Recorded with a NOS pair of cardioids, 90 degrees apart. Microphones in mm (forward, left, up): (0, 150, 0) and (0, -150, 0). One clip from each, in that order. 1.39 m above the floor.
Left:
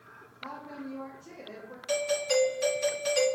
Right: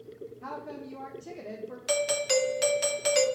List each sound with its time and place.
0.4 s a woman speaking: 40° right, 0.6 m
1.9 s a doorbell: 45° right, 0.9 m